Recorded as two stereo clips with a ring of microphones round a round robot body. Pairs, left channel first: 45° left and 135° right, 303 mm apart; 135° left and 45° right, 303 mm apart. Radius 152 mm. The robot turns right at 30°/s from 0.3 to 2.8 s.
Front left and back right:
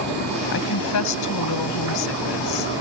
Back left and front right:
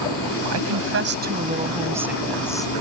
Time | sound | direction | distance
0.5 | a woman speaking | 5° right | ?